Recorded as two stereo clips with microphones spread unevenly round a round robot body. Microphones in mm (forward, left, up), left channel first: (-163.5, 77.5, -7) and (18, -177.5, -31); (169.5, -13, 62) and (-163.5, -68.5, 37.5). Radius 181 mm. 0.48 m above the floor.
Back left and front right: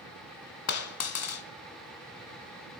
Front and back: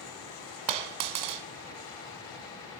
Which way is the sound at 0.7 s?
170° left.